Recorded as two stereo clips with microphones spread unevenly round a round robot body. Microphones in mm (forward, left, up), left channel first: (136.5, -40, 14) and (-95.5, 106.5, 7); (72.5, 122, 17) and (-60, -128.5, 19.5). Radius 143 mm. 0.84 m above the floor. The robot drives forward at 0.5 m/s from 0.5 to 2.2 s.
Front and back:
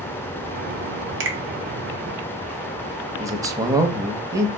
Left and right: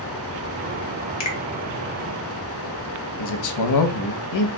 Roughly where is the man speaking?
Left.